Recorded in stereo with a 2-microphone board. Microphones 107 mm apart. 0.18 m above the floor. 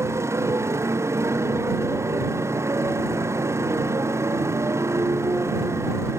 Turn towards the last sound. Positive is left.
turn(degrees=-25)  # may be behind; listen again after turning